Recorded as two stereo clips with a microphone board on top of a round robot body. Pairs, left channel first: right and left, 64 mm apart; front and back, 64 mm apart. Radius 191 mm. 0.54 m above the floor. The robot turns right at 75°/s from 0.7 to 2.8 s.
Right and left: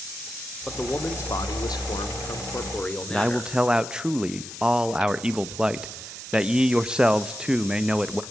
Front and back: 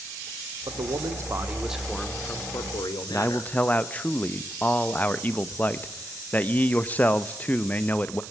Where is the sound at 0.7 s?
175° right, 2 m; by 3.5 s 20° right, 2 m.